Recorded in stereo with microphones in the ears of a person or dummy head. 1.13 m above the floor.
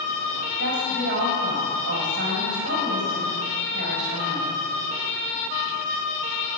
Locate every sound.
0.6 s a woman speaking: 55° right (ahead or behind), 5 m